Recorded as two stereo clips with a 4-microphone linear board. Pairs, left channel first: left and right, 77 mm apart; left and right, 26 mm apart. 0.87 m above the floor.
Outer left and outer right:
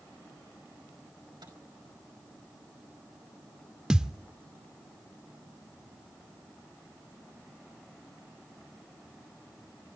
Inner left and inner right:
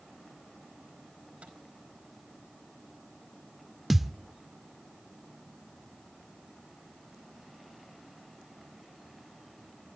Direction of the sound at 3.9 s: 10° right (ahead or behind).